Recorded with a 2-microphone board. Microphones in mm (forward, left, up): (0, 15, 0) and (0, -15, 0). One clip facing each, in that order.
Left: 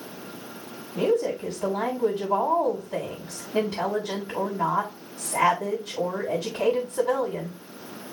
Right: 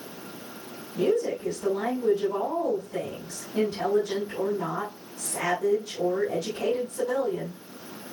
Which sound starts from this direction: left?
A woman speaking, at 0.9 s.